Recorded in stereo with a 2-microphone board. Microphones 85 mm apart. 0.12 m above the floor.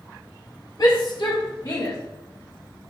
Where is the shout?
55° left (ahead or behind), 2.5 m; by 2.0 s 45° left (ahead or behind), 2.5 m.